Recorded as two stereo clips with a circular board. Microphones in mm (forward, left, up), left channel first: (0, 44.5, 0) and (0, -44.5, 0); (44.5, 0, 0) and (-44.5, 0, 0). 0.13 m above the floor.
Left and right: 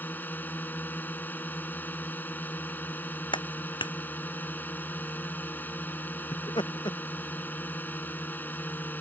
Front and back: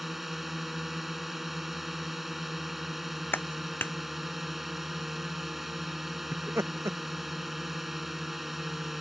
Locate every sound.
0.0 s a drone: 95° left
3.3 s a clap: 65° left
6.3 s laughter: 120° left